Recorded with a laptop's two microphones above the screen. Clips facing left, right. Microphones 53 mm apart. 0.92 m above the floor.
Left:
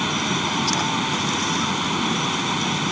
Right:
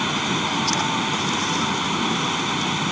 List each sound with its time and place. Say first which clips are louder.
0.0 s a fan: even; 5° right (ahead or behind)